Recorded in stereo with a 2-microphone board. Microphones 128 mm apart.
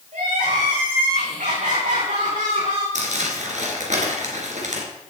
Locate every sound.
0.1 s crying: 80° right, 6.5 m
3.0 s crumpling: 70° right (ahead or behind), 3 m